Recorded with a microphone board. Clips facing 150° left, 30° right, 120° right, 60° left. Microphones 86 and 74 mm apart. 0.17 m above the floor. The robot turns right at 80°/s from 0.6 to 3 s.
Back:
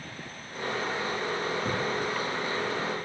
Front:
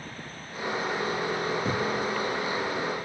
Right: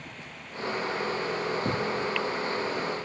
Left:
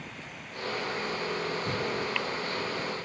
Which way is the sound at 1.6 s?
115° right.